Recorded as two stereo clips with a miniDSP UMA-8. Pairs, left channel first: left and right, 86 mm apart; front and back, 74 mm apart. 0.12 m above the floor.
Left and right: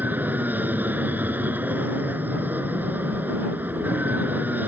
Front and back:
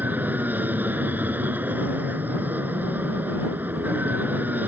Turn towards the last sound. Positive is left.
turn(degrees=-140)